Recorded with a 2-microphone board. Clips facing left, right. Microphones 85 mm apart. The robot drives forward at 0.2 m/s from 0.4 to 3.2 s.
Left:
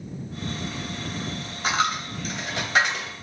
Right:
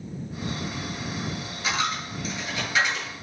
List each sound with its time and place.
1.6 s a dropped coin: 55° left (ahead or behind), 1.6 m; by 3.1 s 65° left (ahead or behind), 1.5 m